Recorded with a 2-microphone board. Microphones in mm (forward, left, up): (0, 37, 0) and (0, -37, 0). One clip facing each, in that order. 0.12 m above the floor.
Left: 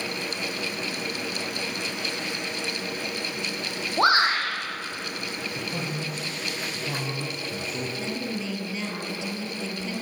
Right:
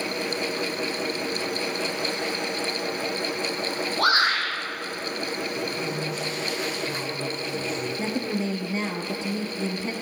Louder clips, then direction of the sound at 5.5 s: Right 3 dB; 45° left (ahead or behind).